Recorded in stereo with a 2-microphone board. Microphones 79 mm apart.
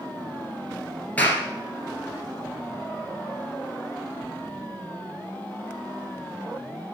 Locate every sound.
1.2 s a clap: 20° left (ahead or behind), 2.0 m